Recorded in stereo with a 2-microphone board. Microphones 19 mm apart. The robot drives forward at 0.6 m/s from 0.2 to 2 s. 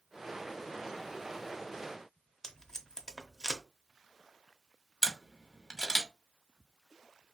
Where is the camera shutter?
30° left (ahead or behind), 1.0 m.